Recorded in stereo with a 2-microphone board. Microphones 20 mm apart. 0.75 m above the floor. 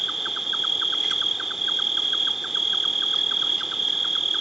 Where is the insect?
10° right (ahead or behind).